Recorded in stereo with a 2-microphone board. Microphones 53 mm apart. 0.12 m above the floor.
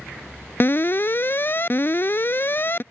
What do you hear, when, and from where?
0.6 s an alarm: 45° left (ahead or behind)